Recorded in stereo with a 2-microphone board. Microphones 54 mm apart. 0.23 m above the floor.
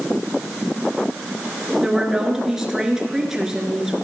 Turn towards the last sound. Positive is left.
turn(degrees=-10)  # may be behind; listen again after turning